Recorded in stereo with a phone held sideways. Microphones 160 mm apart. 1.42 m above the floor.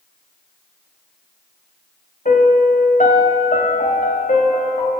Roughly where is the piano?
Left.